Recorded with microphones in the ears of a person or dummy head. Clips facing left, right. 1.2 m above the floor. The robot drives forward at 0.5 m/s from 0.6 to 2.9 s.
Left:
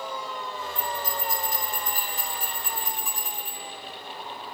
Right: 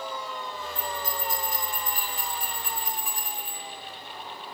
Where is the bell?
40° left (ahead or behind), 8 m; by 3.6 s 35° left (ahead or behind), 9 m.